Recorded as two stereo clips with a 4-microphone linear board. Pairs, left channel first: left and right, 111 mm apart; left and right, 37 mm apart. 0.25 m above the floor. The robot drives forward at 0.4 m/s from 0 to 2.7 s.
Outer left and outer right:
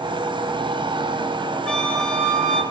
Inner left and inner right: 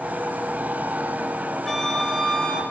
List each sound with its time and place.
1.7 s a flute: 10° left (ahead or behind), 1.1 m; by 2.6 s 5° left (ahead or behind), 1.3 m